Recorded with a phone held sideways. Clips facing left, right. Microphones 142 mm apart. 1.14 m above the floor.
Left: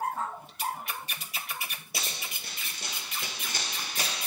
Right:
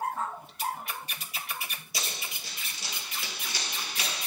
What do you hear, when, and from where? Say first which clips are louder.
1.9 s running footsteps: even; 50° left (ahead or behind), 1.8 m; by 4.3 s 35° left (ahead or behind), 1.7 m